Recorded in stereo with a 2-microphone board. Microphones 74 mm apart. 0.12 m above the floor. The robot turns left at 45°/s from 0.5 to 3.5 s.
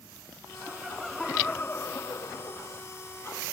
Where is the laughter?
160° right; by 2.8 s 105° left.